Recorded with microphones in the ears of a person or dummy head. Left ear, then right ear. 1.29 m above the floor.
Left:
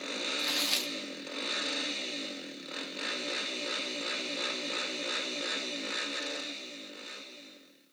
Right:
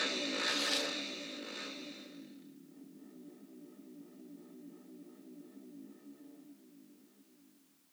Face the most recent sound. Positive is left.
turn(degrees=20)  # may be behind; listen again after turning